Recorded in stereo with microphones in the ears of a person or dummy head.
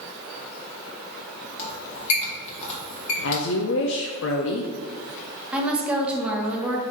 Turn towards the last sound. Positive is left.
turn(degrees=-10)  # may be behind; listen again after turning